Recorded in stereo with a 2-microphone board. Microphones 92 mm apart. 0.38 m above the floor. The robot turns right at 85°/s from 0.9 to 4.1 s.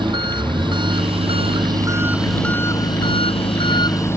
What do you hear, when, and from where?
0.0 s an engine running: 120° right; by 4.2 s 150° left